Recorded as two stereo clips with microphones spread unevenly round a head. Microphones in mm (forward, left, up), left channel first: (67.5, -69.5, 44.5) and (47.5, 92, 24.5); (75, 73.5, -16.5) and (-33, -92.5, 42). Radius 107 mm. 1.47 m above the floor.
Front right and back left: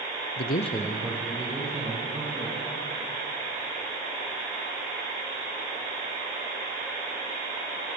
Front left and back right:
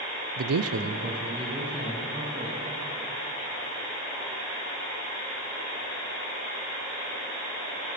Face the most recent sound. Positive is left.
turn(degrees=160)